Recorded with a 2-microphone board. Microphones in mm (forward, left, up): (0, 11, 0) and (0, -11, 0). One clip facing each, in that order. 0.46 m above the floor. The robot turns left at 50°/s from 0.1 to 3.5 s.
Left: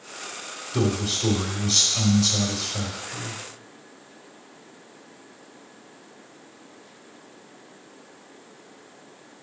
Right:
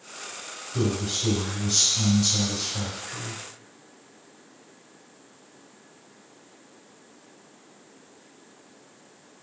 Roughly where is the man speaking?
Behind left.